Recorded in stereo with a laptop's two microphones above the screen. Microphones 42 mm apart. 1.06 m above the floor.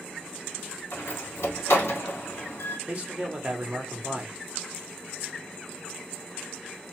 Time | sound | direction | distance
0.9 | a door slam | 85° left | 1.6 m
2.9 | a man speaking | 35° right (ahead or behind) | 0.8 m